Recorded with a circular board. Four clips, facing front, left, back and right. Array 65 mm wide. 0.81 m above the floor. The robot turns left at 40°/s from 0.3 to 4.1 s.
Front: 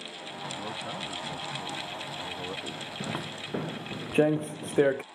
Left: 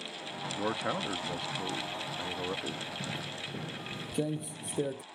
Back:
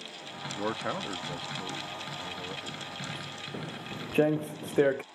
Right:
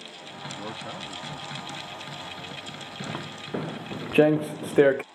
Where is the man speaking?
150° left; by 2.9 s 60° left.